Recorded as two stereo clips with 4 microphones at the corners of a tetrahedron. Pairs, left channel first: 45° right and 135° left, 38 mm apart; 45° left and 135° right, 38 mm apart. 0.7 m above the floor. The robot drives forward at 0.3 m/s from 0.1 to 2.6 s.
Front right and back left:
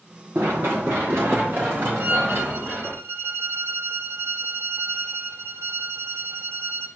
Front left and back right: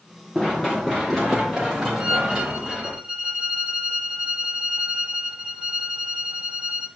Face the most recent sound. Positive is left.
turn(degrees=160)